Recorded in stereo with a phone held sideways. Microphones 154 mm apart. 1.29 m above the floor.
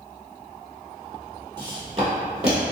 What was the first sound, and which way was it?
Footsteps, 30° right (ahead or behind).